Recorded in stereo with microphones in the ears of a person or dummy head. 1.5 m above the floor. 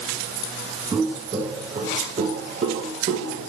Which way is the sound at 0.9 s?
15° right (ahead or behind).